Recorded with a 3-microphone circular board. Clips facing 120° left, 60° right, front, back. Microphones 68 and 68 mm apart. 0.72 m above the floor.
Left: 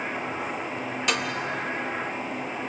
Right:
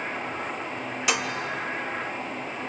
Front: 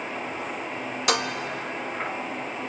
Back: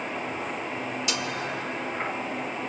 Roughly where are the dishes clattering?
Ahead left.